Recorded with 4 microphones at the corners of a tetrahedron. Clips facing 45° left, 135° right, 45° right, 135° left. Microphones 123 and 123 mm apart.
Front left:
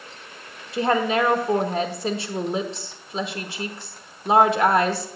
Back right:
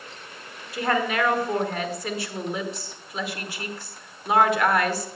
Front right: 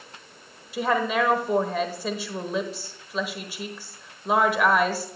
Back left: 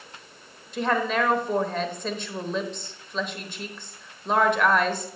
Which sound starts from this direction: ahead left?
A woman speaking, at 0.7 s.